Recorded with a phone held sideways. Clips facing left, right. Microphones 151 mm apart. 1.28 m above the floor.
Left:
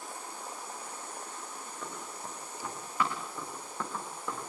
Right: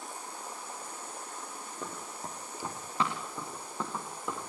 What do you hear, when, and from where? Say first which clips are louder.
1.8 s running footsteps: right 2 dB; 35° right (ahead or behind), 9 m; by 4.4 s 10° right (ahead or behind), 9 m